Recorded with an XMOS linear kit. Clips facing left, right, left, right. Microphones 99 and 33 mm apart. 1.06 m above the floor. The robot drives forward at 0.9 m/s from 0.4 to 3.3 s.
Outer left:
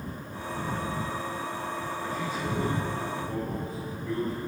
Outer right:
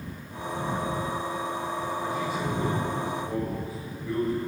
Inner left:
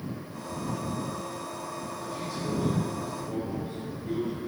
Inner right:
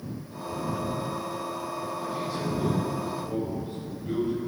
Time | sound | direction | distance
2.0 | a man speaking | 10° right (ahead or behind) | 4.5 m